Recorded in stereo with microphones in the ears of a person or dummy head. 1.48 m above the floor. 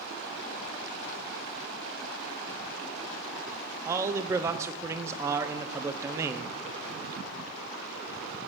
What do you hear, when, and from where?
3.9 s a man speaking: 10° right (ahead or behind), 0.6 m